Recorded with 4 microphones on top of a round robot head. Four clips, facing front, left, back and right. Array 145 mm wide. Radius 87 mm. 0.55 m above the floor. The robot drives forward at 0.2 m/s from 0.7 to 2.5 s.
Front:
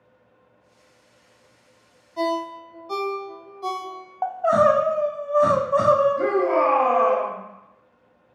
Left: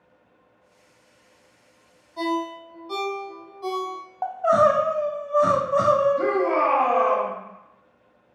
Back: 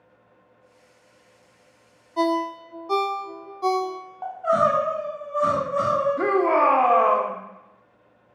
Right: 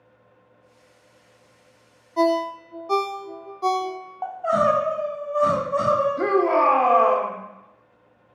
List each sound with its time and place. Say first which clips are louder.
2.2 s a ringtone: right 6 dB, back 2 dB; 135° right, 0.5 m; by 4.0 s 140° right, 0.6 m
4.2 s crying: left 2 dB, front 3 dB; 30° left, 0.6 m
6.2 s a shout: right 2 dB, even; 155° right, 0.9 m